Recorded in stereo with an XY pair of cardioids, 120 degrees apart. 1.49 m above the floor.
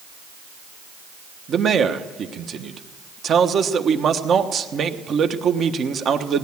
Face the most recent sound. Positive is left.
turn(degrees=-45)